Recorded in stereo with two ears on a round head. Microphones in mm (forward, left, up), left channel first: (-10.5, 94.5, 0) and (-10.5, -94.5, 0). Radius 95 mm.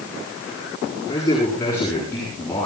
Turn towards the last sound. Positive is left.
turn(degrees=10)  # may be behind; listen again after turning